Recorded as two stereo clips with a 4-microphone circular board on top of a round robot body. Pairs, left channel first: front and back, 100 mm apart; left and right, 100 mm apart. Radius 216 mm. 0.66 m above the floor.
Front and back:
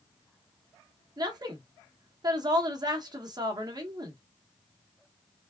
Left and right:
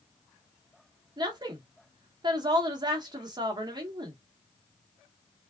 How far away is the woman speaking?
About 1.6 m.